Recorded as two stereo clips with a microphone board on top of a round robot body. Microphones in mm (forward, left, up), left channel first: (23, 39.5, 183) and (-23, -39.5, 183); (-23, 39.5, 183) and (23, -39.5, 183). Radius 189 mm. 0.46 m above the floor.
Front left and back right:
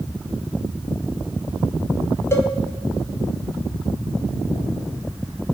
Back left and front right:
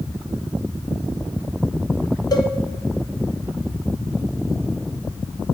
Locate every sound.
2.3 s a cowbell: 110° left, 1.7 m